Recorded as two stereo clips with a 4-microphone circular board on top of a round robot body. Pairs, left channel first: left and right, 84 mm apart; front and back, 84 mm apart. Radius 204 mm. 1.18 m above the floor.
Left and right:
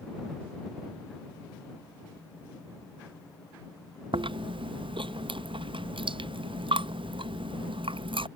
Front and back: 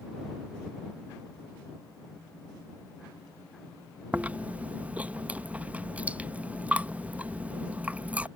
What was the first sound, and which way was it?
Chewing, 105° right.